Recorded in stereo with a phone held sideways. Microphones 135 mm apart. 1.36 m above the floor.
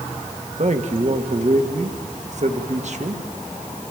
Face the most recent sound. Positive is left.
turn(degrees=-60)  # may be behind; listen again after turning